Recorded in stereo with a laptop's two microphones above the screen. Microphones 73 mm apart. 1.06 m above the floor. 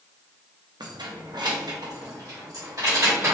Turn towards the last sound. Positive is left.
turn(degrees=-45)  # may be behind; listen again after turning